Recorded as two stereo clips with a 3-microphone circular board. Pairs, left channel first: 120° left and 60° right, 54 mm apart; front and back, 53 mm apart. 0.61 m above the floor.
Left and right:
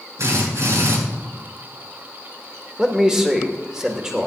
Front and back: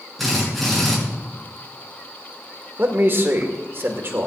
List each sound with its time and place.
0.2 s a drill: 85° right, 7.5 m
2.8 s a man speaking: 135° right, 2 m